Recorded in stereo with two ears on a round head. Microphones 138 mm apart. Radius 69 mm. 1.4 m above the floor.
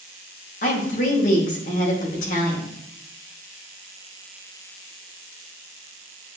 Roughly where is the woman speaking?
Left.